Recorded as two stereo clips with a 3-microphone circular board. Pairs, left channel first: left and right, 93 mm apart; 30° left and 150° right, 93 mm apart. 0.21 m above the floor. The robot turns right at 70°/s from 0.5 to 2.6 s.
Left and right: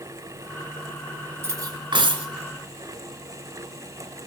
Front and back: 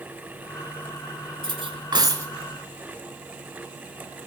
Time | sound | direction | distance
1.4 | cutlery clinking | 155° right | 1.7 m